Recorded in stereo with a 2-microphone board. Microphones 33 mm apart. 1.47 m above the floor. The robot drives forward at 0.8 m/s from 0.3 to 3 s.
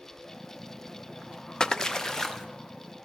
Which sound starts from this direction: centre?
A splash, at 1.6 s.